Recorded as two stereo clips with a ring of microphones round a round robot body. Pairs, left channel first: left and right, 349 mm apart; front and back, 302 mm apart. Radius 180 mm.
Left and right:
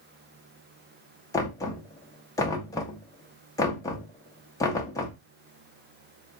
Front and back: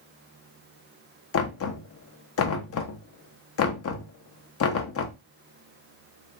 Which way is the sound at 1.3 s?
10° left.